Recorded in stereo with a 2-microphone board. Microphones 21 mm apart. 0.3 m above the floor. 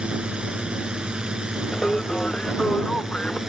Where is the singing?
50° left (ahead or behind).